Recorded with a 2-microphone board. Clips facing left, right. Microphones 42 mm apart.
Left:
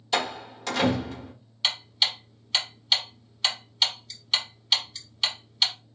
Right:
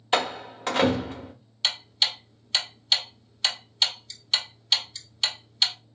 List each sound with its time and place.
0.1 s a door slam: 35° right (ahead or behind), 1.3 m
1.6 s ticking: 5° left (ahead or behind), 1.1 m